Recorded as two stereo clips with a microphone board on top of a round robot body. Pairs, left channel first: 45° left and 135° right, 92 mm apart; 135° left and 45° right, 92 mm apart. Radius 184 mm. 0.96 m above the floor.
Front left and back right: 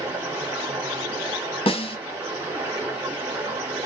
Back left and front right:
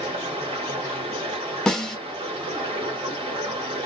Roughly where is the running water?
Ahead right.